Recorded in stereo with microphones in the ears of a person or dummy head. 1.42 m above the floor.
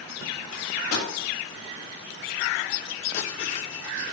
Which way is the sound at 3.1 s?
50° left (ahead or behind).